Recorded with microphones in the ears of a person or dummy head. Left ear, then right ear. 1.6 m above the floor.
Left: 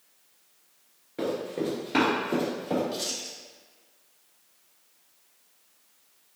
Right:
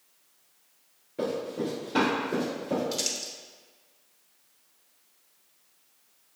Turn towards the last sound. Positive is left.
turn(degrees=-75)  # may be behind; listen again after turning